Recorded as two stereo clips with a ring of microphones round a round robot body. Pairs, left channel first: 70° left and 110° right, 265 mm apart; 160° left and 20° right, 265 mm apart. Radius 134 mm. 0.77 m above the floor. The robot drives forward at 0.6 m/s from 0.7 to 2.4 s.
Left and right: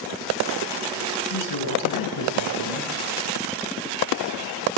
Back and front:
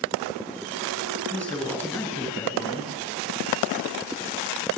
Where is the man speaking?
70° left, 8.5 m; by 2.9 s 75° left, 8 m.